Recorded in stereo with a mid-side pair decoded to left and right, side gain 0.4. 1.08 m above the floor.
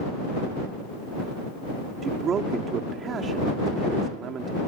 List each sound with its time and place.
2.0 s a man speaking: 60° right